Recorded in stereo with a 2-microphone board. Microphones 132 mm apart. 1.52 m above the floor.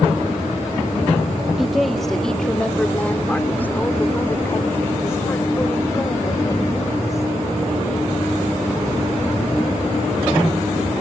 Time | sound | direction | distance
1.6 | a woman speaking | centre (ahead or behind) | ?